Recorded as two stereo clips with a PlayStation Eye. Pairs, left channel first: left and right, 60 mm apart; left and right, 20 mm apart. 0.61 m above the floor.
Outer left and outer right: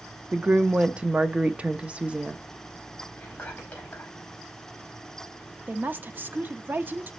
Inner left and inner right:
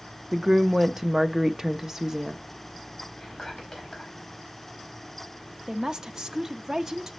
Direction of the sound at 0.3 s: 20° right (ahead or behind).